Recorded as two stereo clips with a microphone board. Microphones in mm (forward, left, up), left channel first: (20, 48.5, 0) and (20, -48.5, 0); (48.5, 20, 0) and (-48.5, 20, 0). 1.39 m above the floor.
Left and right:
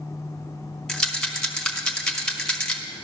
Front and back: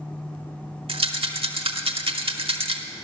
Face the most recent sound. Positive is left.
turn(degrees=175)